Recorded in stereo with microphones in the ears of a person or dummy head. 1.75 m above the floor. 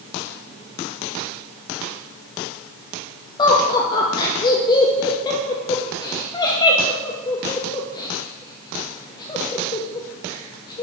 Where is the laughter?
25° left (ahead or behind), 0.7 m.